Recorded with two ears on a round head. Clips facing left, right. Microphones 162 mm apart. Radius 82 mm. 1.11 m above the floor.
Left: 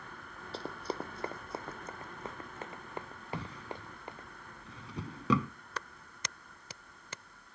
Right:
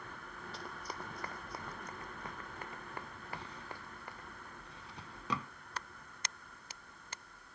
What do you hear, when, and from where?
0.5 s running footsteps: 25° left (ahead or behind); by 4.3 s 20° left (ahead or behind)
3.3 s a drawer: 70° left (ahead or behind)
5.8 s a clap: 75° left (ahead or behind)